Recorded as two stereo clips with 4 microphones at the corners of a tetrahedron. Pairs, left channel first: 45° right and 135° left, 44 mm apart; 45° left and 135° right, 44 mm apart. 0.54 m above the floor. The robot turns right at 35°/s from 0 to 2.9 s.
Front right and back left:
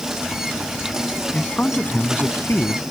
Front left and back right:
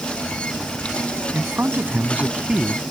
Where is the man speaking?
110° right; by 2.8 s 60° right.